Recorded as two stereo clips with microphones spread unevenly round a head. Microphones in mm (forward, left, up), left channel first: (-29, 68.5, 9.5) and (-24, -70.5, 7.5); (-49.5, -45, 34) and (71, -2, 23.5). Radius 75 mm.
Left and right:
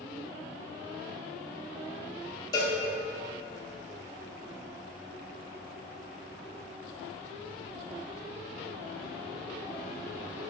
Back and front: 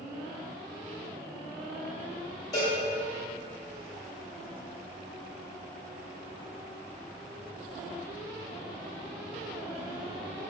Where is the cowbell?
145° left, 0.9 m.